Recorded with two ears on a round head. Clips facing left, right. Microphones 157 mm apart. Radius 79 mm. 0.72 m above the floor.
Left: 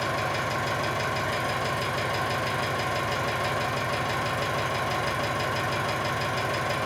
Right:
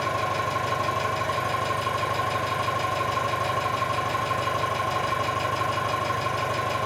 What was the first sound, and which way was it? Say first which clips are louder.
An engine running: right 2 dB; 15° left (ahead or behind).